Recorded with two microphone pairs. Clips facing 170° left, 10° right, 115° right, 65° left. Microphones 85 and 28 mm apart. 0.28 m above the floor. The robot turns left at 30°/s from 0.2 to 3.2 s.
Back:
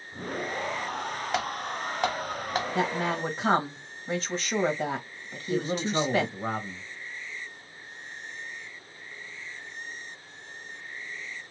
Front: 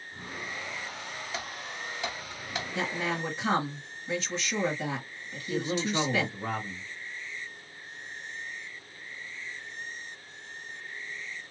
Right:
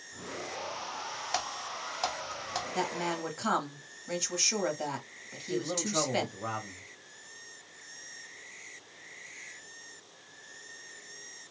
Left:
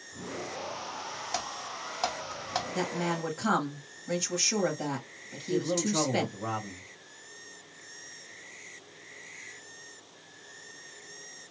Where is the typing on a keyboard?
170° left, 0.6 m; by 2.6 s 130° left, 0.6 m.